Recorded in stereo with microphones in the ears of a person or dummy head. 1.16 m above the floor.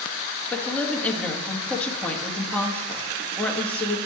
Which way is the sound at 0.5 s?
Centre (ahead or behind).